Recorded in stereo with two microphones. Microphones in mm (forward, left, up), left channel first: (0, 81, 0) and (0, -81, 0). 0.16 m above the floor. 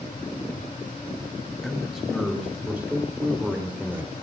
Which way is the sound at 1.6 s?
Centre (ahead or behind).